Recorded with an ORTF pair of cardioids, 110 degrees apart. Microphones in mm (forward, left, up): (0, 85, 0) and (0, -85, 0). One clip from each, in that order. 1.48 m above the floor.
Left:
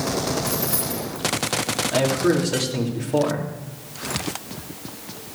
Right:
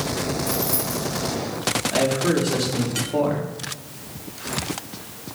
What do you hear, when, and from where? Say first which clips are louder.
0.5 s keys jangling: right 1 dB; straight ahead, 4 m
1.9 s a man speaking: left 2 dB; 15° left, 3.5 m